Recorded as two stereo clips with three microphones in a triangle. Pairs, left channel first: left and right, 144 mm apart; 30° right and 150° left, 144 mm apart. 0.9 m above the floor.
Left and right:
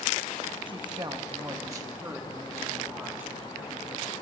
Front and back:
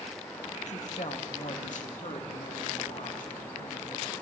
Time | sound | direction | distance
0.7 | a woman speaking | 40° right | 1.1 m